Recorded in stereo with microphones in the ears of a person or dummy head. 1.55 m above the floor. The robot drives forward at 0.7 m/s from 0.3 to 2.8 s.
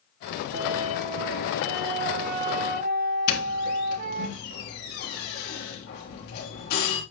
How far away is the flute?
About 3 m.